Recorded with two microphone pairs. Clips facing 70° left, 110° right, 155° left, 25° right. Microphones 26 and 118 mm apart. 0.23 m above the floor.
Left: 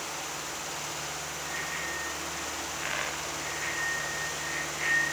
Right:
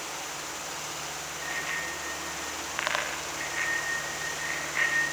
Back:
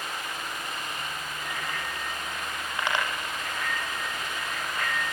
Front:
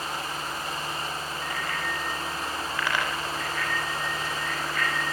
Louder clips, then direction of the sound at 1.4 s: Right 3 dB, front 2 dB; 135° right.